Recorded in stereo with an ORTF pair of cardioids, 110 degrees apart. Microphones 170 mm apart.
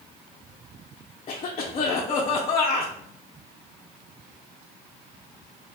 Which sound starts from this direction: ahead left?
A cough, at 1.3 s.